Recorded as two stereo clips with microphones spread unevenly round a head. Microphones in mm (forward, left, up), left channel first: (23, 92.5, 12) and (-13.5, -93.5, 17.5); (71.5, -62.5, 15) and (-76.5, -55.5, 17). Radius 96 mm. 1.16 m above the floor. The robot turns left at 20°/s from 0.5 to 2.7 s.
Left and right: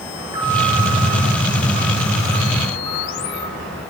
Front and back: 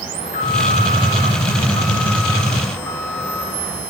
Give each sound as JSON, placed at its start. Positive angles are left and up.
{"t": 0.1, "sound": "an alarm", "azimuth_deg": -30, "distance_m": 9.0}